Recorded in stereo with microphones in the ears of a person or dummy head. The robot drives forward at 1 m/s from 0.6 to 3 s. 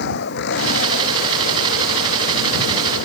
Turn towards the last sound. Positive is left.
turn(degrees=60)  # may be behind; listen again after turning